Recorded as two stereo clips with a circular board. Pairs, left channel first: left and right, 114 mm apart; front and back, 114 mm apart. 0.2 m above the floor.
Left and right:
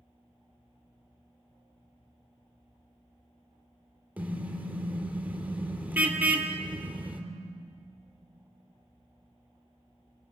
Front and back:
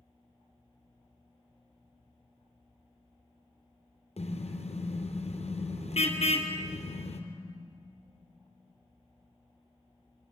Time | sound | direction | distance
4.2 | a car horn | 15° right | 2.5 m